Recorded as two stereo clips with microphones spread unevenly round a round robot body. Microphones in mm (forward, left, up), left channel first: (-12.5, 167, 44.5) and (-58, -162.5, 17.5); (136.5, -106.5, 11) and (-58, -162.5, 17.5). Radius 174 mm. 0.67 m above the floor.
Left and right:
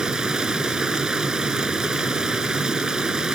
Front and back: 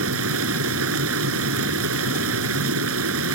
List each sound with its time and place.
0.0 s running water: 175° left